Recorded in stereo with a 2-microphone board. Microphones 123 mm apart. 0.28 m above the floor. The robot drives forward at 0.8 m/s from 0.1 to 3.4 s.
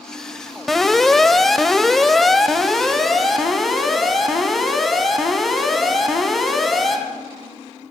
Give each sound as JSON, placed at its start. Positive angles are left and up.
{"t": 0.7, "sound": "an alarm", "side_deg": 0, "distance_m": 1.1}